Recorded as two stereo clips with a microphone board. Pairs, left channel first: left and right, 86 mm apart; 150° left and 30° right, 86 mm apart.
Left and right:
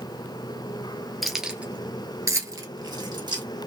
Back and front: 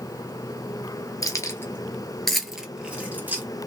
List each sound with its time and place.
1.2 s keys jangling: straight behind, 1.1 m; by 3.4 s 95° right, 1.6 m